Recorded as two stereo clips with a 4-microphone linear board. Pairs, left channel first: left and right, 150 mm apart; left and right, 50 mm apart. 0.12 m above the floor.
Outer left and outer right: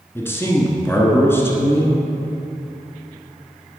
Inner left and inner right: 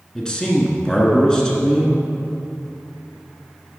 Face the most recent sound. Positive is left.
turn(degrees=15)  # may be behind; listen again after turning